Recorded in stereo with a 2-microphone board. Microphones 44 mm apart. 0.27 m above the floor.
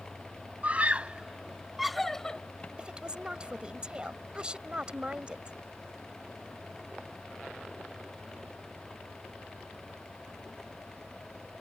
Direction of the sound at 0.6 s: 35° right (ahead or behind).